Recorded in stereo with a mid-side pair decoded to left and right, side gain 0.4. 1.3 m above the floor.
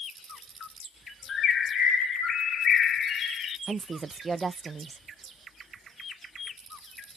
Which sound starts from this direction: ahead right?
A woman speaking, at 3.7 s.